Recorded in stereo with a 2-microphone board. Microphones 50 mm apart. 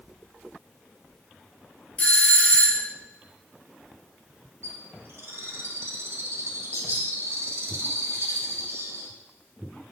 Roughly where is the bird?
Right.